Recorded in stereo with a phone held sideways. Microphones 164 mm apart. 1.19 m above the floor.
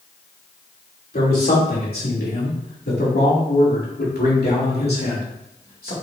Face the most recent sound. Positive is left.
turn(degrees=65)  # may be behind; listen again after turning